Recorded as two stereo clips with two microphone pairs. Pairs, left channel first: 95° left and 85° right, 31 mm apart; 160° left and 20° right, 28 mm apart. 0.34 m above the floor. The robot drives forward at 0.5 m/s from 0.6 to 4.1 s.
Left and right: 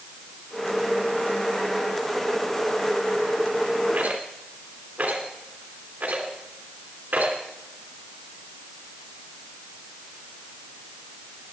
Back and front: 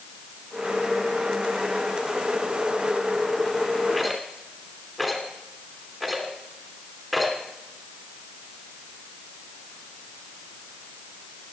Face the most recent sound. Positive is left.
turn(degrees=-115)